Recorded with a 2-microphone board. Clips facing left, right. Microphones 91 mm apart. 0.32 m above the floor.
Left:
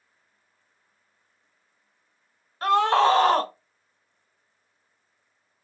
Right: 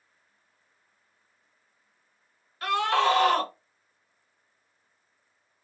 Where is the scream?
35° left (ahead or behind), 1.0 m.